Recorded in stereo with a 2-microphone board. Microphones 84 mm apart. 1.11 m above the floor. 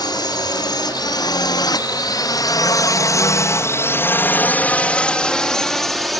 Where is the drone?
55° left (ahead or behind); by 6.2 s centre (ahead or behind).